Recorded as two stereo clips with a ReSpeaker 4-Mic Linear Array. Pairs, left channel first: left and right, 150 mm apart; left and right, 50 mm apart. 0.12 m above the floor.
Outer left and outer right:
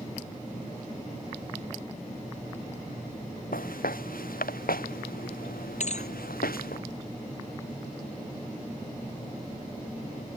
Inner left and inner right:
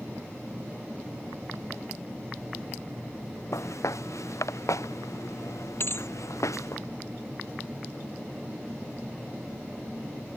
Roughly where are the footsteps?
Left.